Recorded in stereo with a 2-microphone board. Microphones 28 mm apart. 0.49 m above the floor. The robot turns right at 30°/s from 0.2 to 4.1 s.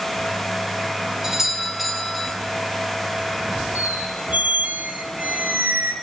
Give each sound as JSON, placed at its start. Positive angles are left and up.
{"t": 1.2, "sound": "a doorbell", "azimuth_deg": -25, "distance_m": 2.0}
{"t": 3.8, "sound": "a squeak", "side_deg": -75, "distance_m": 2.5}